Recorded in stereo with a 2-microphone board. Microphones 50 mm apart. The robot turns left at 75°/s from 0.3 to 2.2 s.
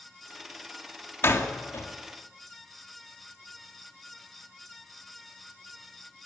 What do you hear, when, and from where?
1.2 s a door slam: 55° left (ahead or behind), 2 m; by 1.9 s 60° left (ahead or behind), 2 m